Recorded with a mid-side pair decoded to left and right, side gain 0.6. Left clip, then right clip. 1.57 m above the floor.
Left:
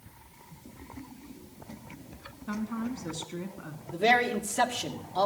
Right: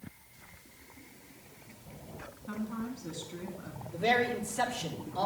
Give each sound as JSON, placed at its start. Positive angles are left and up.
{"t": 2.5, "sound": "a woman speaking", "azimuth_deg": 35, "distance_m": 3.0}
{"t": 3.9, "sound": "a man speaking", "azimuth_deg": 55, "distance_m": 2.0}